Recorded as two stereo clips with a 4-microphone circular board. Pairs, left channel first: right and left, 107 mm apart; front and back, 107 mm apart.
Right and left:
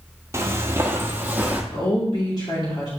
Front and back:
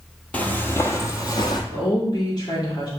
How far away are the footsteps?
About 1.1 m.